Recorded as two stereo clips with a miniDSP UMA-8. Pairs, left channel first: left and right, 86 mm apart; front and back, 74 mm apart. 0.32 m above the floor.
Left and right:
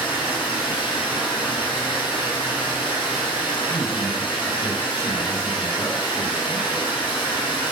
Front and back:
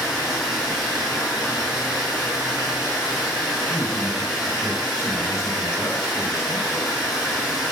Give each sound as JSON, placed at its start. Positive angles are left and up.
{"t": 0.0, "sound": "running water", "azimuth_deg": 100, "distance_m": 1.4}
{"t": 3.7, "sound": "a man speaking", "azimuth_deg": 50, "distance_m": 2.0}